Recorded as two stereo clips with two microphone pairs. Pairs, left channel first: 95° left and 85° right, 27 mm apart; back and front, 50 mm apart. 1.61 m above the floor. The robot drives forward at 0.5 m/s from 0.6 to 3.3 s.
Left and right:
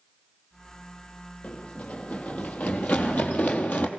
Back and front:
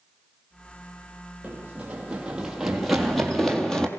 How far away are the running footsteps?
About 4 m.